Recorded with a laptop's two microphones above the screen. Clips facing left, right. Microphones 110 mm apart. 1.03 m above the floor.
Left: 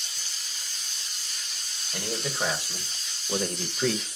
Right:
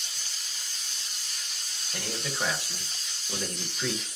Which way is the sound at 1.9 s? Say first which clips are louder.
Left 3 dB; 10° left (ahead or behind).